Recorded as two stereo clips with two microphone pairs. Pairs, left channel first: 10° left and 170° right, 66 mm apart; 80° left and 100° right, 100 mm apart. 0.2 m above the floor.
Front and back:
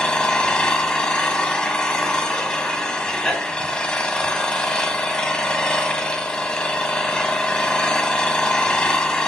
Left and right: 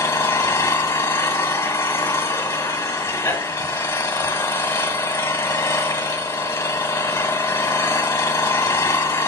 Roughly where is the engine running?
Left.